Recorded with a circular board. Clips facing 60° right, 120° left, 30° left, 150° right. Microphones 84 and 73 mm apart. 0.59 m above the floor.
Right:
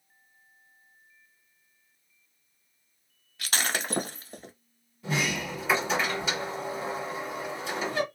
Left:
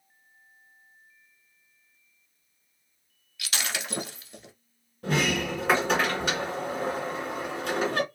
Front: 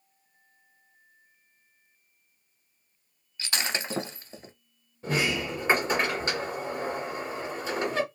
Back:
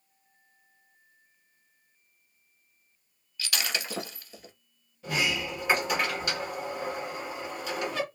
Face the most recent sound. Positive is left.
turn(degrees=85)